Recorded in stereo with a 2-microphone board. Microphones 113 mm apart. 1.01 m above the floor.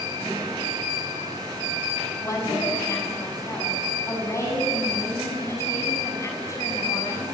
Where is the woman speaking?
25° left (ahead or behind), 7 m.